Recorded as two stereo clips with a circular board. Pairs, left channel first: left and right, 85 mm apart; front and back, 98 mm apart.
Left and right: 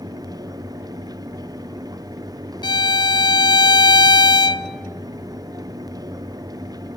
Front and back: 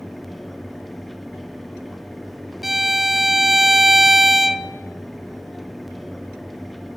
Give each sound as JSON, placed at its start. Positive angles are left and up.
{"t": 2.6, "sound": "a violin", "azimuth_deg": 95, "distance_m": 0.8}